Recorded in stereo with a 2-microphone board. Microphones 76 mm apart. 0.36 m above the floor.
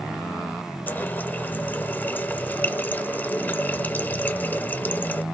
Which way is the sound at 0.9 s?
25° left (ahead or behind).